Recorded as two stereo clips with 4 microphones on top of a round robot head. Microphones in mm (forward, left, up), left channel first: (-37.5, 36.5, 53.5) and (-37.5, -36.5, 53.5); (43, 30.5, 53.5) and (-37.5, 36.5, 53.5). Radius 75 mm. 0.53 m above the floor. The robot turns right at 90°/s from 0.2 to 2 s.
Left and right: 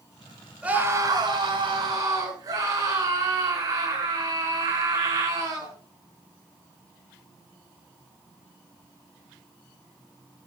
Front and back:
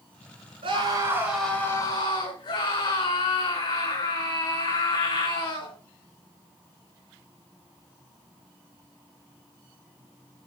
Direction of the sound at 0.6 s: 165° right.